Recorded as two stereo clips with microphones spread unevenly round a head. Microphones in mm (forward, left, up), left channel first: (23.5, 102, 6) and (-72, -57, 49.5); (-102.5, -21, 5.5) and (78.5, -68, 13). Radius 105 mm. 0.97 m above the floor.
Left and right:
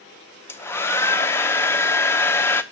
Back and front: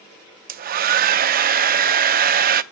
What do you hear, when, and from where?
0.5 s a hair dryer: 30° right, 0.6 m